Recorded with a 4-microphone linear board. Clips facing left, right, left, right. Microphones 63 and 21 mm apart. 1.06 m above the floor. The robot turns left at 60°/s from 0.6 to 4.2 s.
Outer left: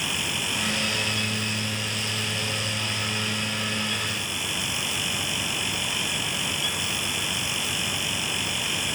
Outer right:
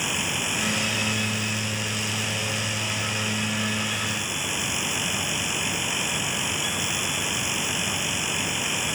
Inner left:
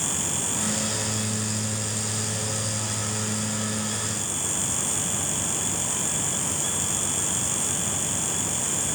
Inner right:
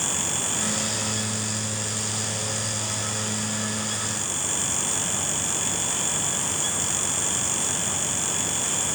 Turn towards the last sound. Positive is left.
No sound to turn to.